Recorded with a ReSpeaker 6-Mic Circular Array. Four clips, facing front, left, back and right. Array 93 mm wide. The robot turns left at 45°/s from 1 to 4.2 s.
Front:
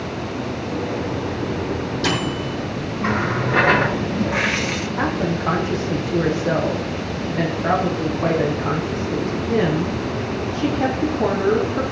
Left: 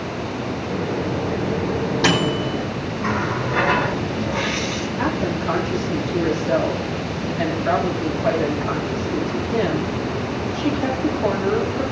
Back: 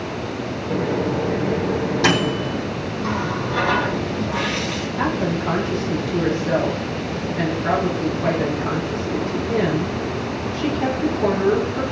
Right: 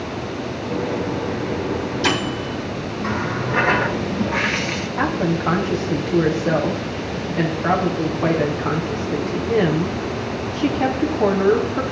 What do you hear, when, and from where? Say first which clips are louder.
0.7 s a microwave: right 2 dB, back 5 dB; 175° left, 4.5 m; by 2.6 s 100° left, 4.5 m
3.0 s a running tap: left 1 dB, front 3 dB; 15° left, 1.1 m; by 4.9 s 40° right, 1.1 m
5.0 s a woman speaking: right 3 dB, back 1 dB; 55° right, 5 m